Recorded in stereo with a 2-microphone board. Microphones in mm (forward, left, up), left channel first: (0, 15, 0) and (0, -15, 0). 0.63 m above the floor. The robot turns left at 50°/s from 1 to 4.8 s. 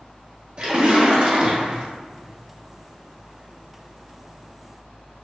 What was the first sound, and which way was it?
A splash, 80° right.